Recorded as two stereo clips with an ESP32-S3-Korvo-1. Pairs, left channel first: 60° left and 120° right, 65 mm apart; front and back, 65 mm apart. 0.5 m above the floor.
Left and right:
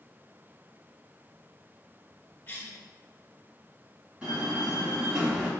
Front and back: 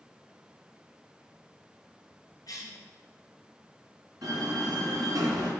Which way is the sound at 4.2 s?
175° left.